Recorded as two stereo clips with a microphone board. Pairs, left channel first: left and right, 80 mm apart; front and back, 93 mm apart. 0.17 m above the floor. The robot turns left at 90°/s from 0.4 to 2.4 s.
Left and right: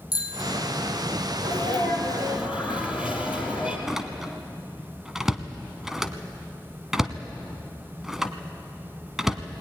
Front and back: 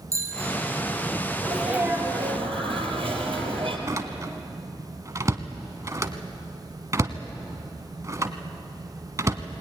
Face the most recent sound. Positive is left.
turn(degrees=-170)